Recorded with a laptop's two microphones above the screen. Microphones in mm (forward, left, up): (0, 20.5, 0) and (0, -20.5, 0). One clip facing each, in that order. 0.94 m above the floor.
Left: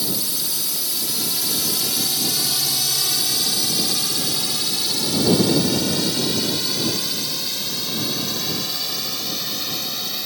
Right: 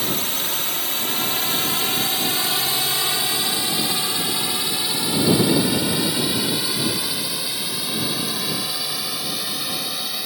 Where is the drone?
45° right (ahead or behind); by 10.3 s 10° right (ahead or behind).